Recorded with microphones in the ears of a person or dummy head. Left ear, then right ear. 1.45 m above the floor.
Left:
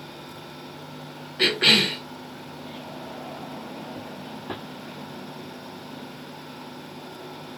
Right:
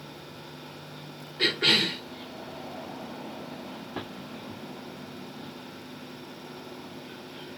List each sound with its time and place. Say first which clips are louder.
1.4 s a cough: left 4 dB; 30° left (ahead or behind), 0.8 m